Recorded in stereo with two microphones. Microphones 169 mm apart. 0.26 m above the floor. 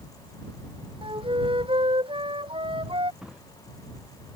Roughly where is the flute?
Right.